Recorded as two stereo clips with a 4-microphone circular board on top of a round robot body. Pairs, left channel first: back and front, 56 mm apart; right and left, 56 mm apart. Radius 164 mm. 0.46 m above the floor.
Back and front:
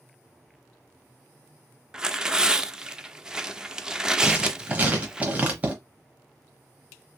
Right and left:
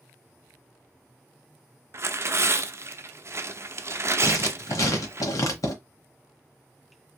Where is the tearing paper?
75° left, 0.7 m.